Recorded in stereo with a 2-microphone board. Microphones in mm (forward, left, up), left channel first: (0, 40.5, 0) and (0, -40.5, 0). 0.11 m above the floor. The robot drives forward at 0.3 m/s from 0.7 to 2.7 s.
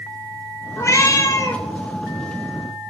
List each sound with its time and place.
0.8 s a cat meowing: 40° left (ahead or behind), 0.6 m; by 1.6 s 45° left (ahead or behind), 0.5 m